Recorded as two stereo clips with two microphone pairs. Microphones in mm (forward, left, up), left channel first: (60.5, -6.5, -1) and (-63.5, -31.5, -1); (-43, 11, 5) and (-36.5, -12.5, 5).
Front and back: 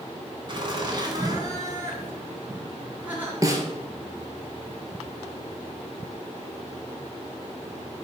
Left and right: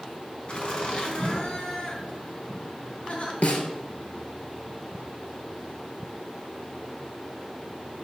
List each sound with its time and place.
0.5 s laughter: 145° left, 3 m; by 3.3 s 115° left, 3.5 m
3.4 s a snare drum: 130° left, 1.7 m